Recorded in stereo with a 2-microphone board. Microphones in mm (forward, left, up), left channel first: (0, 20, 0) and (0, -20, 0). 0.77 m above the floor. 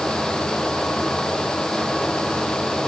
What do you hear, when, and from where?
Only background noise.